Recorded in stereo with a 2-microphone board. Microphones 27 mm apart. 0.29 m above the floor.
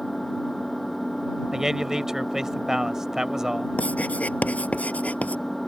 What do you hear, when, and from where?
0.0 s an engine running: 10° left (ahead or behind)
1.5 s a man speaking: 15° right (ahead or behind)
3.8 s writing: 60° left (ahead or behind)